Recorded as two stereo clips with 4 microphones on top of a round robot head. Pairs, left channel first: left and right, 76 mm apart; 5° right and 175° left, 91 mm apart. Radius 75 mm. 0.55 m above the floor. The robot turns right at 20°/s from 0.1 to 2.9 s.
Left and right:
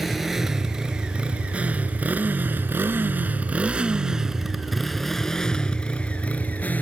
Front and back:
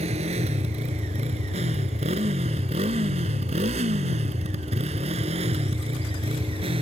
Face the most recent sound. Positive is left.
turn(degrees=155)